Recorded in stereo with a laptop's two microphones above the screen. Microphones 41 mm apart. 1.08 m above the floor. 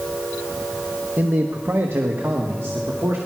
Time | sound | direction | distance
1.2 | a man speaking | 50° right (ahead or behind) | 1.1 m